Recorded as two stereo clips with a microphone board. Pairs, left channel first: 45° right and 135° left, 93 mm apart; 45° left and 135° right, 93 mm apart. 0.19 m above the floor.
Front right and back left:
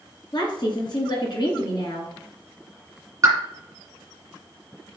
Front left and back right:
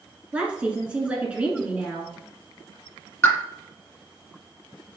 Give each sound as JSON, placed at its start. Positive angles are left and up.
{"t": 0.3, "sound": "a woman speaking", "azimuth_deg": -60, "distance_m": 2.0}
{"t": 3.2, "sound": "a pop", "azimuth_deg": 95, "distance_m": 1.9}